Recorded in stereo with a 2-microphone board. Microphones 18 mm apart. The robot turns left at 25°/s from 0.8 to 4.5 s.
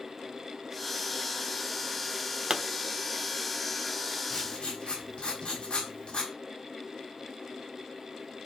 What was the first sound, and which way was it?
A pop, 50° right (ahead or behind).